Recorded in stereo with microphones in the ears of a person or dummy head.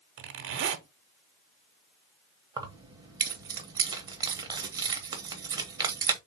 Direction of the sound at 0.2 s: 65° right (ahead or behind).